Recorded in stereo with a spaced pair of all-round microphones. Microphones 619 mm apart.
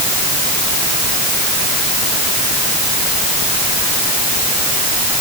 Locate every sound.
Only background noise.